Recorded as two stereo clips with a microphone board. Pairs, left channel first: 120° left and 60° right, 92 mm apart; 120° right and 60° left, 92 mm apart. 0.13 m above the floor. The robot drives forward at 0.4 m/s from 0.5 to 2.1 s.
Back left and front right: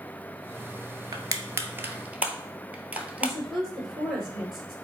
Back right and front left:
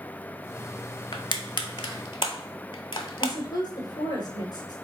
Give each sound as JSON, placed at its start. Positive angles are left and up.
{"t": 1.1, "sound": "crushing", "azimuth_deg": -100, "distance_m": 0.6}
{"t": 3.2, "sound": "a woman speaking", "azimuth_deg": -145, "distance_m": 2.5}